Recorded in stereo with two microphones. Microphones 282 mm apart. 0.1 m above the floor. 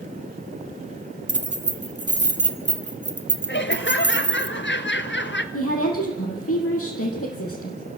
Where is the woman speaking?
55° left (ahead or behind), 4.5 m.